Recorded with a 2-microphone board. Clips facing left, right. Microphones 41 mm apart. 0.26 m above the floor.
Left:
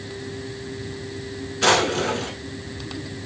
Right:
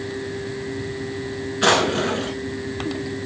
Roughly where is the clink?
No clink in this recording.